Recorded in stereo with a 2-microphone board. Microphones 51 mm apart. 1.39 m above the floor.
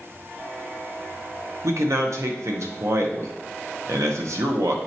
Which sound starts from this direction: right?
A man speaking, at 1.6 s.